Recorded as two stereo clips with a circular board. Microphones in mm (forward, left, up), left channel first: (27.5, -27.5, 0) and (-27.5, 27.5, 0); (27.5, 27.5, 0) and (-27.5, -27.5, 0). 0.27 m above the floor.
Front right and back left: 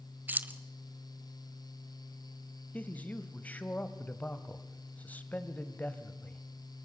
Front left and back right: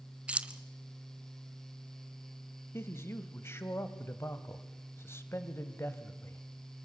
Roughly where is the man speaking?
Ahead.